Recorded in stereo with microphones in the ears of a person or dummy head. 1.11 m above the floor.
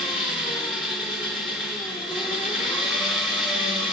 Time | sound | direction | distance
0.0 | an engine running | 10° right (ahead or behind) | 1.9 m